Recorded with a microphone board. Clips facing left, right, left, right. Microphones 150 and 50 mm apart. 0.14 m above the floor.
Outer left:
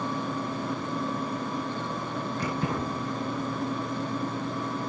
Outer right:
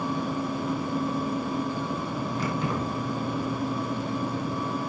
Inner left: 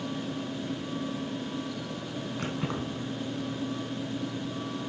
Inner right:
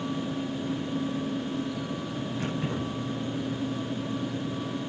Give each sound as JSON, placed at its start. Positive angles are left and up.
{"t": 2.4, "sound": "keys jangling", "side_deg": 40, "distance_m": 4.0}